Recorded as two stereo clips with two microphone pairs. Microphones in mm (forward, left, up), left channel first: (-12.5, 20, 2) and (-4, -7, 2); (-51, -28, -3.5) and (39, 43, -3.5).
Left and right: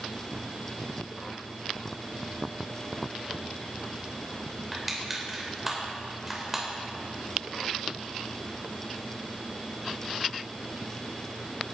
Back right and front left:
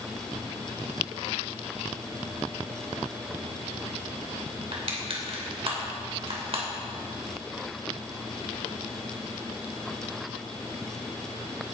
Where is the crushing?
10° left, 3 m.